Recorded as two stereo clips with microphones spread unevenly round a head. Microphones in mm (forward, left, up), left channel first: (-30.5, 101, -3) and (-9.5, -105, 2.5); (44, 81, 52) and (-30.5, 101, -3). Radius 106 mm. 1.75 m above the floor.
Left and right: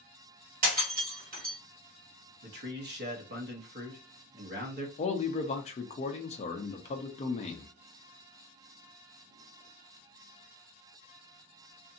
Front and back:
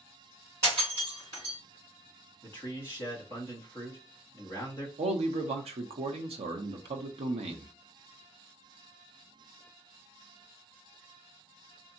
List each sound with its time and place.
0.6 s breaking glass: 100° right, 2 m
2.4 s a man speaking: 110° right, 1.0 m
5.0 s a man speaking: 150° left, 0.6 m